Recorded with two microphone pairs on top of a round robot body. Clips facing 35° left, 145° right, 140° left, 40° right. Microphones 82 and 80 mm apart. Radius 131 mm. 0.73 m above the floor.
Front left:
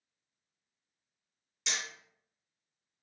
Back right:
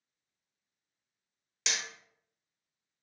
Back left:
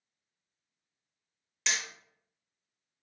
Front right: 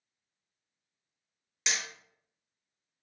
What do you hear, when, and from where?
1.7 s hammering: 115° right, 0.9 m